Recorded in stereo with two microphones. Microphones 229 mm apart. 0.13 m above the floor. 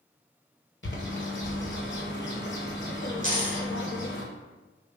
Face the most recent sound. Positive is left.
turn(degrees=-60)  # may be behind; listen again after turning